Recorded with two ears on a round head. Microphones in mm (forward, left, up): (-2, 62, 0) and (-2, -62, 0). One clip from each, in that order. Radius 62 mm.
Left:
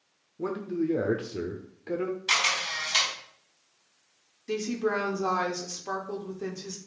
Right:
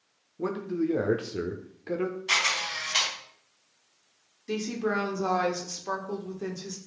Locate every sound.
0.4 s a man speaking: 10° right (ahead or behind), 0.8 m
2.3 s a camera shutter: 30° left (ahead or behind), 4 m
4.5 s a woman speaking: centre (ahead or behind), 1.1 m